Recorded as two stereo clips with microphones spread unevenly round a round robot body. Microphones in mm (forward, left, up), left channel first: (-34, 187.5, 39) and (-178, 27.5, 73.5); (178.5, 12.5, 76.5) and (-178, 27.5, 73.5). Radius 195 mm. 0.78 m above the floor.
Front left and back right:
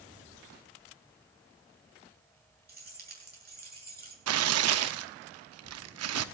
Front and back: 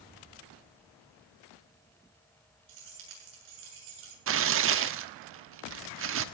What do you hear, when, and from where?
2.7 s keys jangling: 175° right, 8 m
4.3 s tearing paper: 125° right, 1.0 m